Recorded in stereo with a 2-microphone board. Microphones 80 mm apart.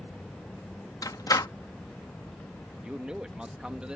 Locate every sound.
0.0 s an aircraft: 15° left (ahead or behind); by 4.0 s 20° left (ahead or behind)
1.0 s a door slam: 45° left (ahead or behind)
2.8 s a man speaking: 10° right (ahead or behind)